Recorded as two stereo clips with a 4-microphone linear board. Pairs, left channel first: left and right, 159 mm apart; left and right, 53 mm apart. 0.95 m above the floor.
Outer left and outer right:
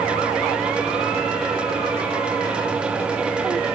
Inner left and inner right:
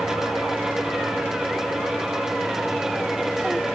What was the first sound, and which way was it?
Only background noise.